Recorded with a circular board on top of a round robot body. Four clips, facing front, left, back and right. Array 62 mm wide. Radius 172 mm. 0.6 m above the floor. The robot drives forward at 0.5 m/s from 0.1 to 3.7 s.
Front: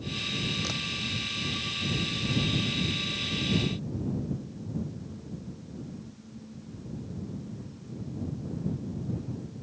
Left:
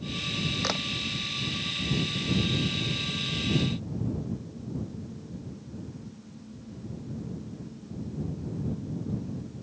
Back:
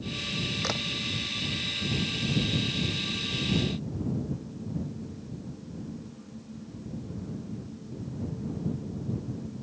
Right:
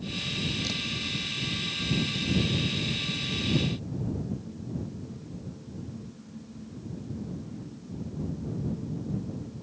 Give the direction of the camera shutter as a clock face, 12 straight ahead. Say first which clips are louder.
Left 4 dB, back 3 dB; 8 o'clock.